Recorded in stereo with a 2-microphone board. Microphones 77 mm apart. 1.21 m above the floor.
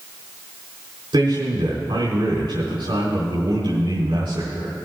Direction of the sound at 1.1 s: 85° right.